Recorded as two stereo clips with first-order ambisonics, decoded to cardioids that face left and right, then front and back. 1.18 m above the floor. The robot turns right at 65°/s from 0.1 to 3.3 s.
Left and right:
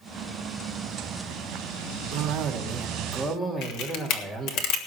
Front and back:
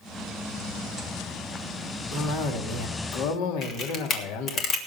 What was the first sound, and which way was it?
A cough, 70° right.